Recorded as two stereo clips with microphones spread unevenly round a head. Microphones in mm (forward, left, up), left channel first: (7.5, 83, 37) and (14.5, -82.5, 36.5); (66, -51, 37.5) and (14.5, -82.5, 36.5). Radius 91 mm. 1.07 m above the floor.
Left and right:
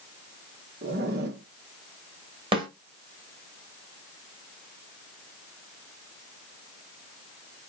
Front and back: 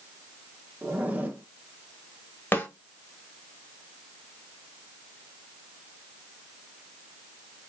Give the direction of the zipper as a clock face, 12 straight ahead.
3 o'clock.